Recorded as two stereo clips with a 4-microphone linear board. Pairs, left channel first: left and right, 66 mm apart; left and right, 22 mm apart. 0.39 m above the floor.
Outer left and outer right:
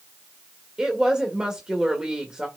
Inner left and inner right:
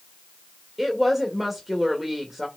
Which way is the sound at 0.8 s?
15° right (ahead or behind).